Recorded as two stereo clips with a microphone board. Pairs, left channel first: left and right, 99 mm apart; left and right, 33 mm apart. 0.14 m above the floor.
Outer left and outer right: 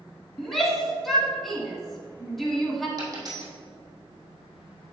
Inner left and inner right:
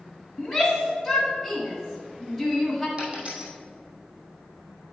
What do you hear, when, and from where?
0.4 s a shout: centre (ahead or behind), 1.5 m
3.0 s a dropped coin: 35° right (ahead or behind), 2.5 m